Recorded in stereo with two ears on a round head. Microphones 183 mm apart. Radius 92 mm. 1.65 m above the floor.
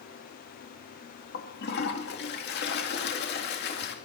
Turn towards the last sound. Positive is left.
turn(degrees=50)  # may be behind; listen again after turning